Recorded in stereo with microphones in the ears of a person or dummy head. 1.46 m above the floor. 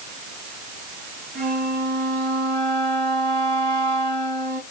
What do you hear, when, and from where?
1.4 s a flute: 35° right (ahead or behind), 2.5 m